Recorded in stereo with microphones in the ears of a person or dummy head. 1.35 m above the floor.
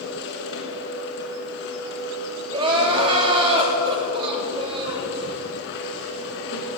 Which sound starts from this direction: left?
A machine running, at 0.0 s.